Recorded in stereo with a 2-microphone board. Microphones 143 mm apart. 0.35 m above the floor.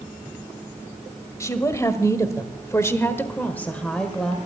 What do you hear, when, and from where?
1.4 s a woman speaking: 20° left (ahead or behind), 1.6 m; by 4.4 s 5° left (ahead or behind), 1.5 m